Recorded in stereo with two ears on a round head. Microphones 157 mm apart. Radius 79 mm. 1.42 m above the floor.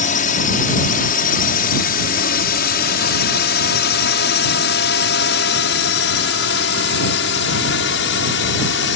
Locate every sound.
0.0 s a drone: 45° left (ahead or behind); by 9.0 s 75° left (ahead or behind)